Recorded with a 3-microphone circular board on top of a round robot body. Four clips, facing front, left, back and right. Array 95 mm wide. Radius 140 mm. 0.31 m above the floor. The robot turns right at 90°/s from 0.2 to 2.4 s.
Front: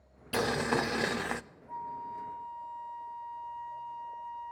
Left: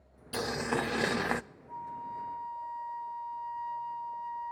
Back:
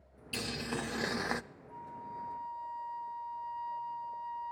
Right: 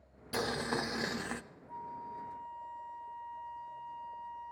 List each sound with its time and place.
0.3 s boiling: 5° right, 0.5 m; by 1.4 s 90° left, 0.5 m
1.7 s a flute: 20° left, 1.3 m; by 4.5 s 85° left, 1.3 m